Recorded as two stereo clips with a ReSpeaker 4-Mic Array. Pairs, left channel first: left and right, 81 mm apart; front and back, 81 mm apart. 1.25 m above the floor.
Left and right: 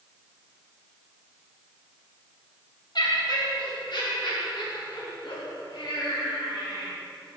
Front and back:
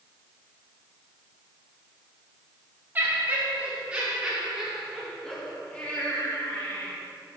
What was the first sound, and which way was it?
Laughter, 115° left.